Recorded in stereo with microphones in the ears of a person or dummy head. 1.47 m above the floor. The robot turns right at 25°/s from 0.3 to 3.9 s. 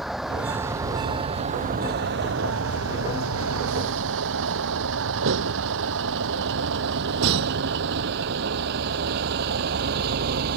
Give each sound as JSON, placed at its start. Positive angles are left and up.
{"t": 0.0, "sound": "a vehicle", "side_deg": -5}